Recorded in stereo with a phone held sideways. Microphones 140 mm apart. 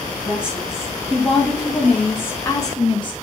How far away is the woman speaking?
About 2.5 m.